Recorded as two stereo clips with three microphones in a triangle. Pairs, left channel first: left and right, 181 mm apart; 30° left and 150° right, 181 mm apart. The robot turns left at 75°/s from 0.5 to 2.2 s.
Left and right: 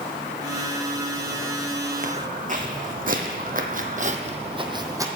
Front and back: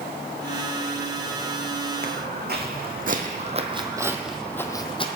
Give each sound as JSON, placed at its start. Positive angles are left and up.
{"t": 2.0, "sound": "footsteps", "azimuth_deg": -120, "distance_m": 1.5}